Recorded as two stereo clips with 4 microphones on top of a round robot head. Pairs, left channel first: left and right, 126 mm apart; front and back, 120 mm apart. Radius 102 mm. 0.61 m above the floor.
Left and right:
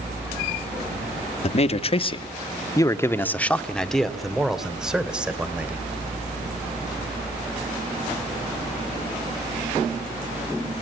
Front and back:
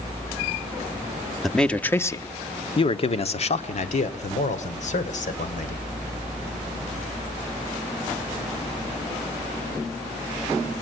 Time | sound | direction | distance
1.4 | a man speaking | 90° left | 1.2 m